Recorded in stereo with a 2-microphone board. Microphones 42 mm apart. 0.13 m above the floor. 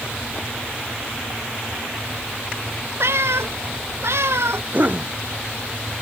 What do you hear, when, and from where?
3.0 s a cat meowing: 75° right (ahead or behind)
4.7 s a cough: 40° right (ahead or behind)